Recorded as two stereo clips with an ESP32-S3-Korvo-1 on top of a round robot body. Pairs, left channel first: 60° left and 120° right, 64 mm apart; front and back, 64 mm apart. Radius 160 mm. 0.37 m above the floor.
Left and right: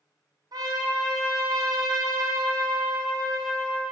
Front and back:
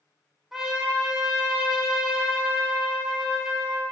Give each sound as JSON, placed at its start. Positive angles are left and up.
{"t": 0.5, "sound": "a trumpet", "azimuth_deg": -95, "distance_m": 1.3}